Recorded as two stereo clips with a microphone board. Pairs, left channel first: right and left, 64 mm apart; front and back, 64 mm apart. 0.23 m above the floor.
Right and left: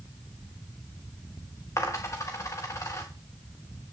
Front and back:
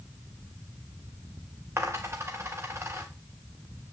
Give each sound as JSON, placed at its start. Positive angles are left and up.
{"t": 1.8, "sound": "a dropped coin", "azimuth_deg": -135, "distance_m": 3.0}